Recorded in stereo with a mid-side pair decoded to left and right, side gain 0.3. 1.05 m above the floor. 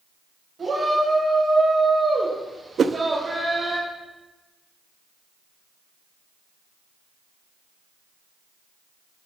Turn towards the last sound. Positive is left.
turn(degrees=-60)